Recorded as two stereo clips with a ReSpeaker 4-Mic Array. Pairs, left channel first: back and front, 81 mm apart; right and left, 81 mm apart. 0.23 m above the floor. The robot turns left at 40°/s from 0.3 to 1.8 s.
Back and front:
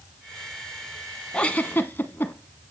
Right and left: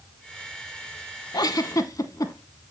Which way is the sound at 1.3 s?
105° right.